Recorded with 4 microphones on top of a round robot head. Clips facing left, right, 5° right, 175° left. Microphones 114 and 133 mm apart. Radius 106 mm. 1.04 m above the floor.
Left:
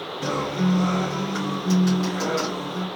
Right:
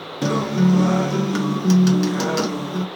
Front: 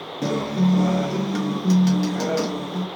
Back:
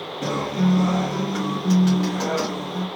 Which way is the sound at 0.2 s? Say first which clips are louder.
Right 6 dB, front 1 dB; 70° right.